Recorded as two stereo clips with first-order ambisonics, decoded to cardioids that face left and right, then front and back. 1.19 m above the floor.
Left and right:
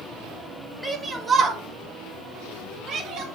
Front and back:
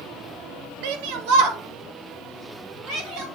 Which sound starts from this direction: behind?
A shout, at 0.8 s.